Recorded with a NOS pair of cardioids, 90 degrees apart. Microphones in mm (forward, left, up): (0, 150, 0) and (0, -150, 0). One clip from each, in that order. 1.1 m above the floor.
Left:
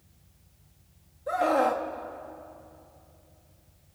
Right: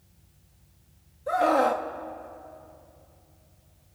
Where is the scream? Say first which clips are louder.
Right 2 dB; 15° right, 2 m.